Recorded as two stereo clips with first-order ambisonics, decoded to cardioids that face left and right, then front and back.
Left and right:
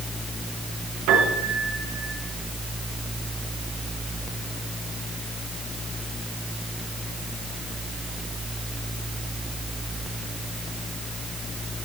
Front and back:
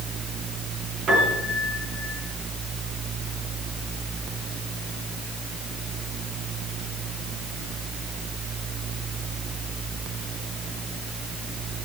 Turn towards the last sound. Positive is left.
turn(degrees=-120)